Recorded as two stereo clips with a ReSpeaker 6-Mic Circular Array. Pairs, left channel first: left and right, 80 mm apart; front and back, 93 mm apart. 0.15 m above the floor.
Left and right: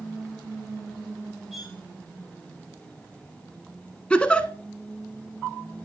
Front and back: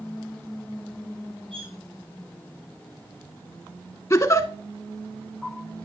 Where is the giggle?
25° left, 0.8 m.